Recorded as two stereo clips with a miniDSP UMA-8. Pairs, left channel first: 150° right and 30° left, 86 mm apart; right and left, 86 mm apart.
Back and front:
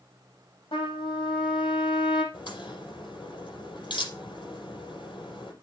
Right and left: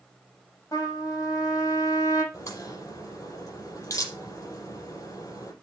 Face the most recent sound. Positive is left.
turn(degrees=-135)